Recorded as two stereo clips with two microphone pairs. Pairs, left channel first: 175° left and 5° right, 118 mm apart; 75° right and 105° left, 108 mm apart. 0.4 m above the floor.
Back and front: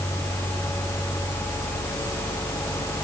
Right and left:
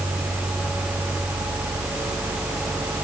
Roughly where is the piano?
I don't hear a piano.